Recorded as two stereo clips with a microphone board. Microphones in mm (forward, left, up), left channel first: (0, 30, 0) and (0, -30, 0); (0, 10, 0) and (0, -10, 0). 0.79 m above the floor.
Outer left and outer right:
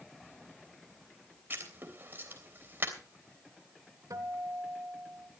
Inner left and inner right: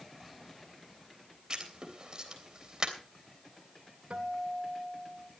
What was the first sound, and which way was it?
Writing, 35° right (ahead or behind).